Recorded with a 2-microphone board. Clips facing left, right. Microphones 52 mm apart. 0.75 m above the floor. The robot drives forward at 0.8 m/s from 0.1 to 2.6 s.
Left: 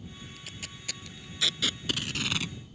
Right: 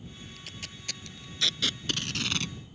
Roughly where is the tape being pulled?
Centre.